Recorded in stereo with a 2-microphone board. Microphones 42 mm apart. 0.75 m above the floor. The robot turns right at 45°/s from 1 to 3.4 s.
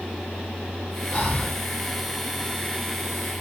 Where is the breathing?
25° left (ahead or behind), 1.2 m; by 1.6 s 10° left (ahead or behind), 1.2 m.